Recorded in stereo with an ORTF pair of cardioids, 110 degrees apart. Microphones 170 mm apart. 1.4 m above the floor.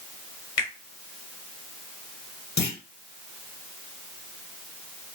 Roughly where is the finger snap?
Ahead left.